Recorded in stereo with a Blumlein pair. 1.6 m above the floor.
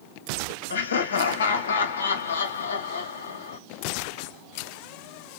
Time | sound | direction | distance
0.7 | laughter | 65° left | 0.9 m